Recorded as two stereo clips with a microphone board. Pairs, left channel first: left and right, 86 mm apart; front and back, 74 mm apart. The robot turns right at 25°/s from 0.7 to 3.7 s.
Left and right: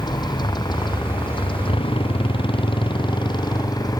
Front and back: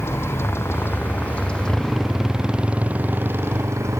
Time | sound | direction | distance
0.0 | a motorcycle | 55° left | ?